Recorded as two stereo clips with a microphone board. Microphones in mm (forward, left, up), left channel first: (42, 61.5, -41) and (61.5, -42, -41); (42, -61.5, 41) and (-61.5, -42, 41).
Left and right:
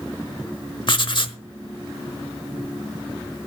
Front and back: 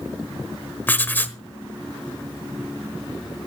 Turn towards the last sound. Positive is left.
turn(degrees=60)